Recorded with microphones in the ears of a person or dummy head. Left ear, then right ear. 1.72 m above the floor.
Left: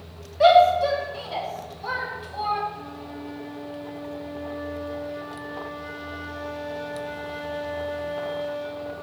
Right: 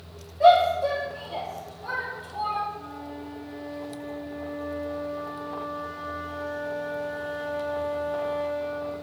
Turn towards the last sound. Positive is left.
turn(degrees=20)  # may be behind; listen again after turning